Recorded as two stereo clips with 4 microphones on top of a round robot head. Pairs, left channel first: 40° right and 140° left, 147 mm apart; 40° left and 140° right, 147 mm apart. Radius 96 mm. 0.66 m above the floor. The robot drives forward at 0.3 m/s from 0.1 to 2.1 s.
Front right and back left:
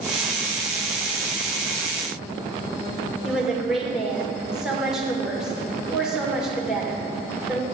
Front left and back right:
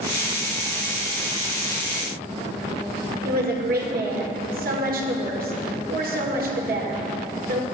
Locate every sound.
3.2 s a woman speaking: 135° right, 1.9 m